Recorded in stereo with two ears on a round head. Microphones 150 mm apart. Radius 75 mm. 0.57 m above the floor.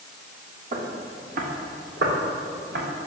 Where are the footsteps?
45° right (ahead or behind), 2.5 m; by 2.9 s 80° right, 3.5 m.